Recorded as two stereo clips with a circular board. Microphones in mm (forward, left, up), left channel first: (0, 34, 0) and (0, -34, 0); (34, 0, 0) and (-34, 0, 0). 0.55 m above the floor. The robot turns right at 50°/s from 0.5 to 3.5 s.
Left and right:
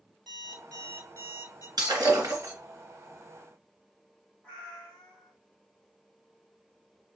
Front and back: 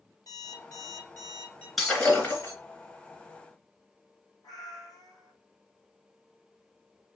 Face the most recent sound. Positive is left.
turn(degrees=15)